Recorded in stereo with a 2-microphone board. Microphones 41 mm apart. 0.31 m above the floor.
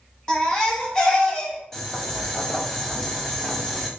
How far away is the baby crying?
About 1.8 m.